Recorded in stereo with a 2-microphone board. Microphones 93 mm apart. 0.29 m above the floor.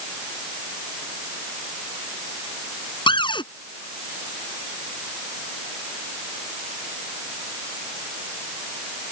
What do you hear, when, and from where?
3.1 s a cupboard door: 60° left (ahead or behind)